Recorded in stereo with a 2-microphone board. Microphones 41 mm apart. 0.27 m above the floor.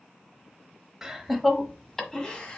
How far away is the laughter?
About 0.9 m.